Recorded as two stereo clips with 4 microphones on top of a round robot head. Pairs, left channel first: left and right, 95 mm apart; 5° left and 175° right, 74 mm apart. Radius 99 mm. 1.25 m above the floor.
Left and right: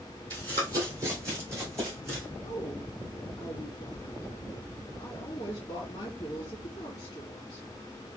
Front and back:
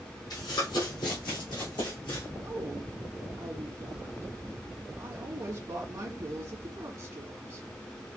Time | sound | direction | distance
0.3 | running footsteps | 45° right | 2 m
2.4 | a woman speaking | 145° left | 2 m